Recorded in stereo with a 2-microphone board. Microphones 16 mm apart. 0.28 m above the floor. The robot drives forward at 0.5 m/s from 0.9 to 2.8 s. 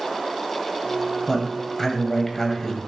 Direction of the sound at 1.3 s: 30° left (ahead or behind).